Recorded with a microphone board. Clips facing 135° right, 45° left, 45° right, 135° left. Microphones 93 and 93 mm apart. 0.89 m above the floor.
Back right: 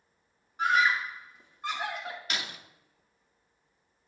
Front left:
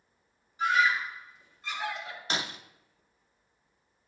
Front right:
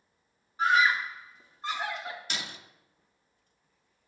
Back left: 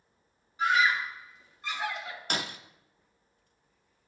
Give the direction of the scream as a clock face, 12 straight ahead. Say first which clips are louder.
Even, front right 1 dB; 3 o'clock.